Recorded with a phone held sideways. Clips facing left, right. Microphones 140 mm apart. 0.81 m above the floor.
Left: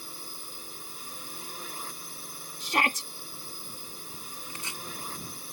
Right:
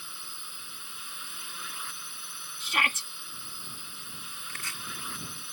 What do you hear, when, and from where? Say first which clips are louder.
0.0 s a drone: left 4 dB; 40° left (ahead or behind)
2.6 s a shout: left 4 dB; 35° left (ahead or behind)
4.5 s chopping: left 2 dB; 20° left (ahead or behind)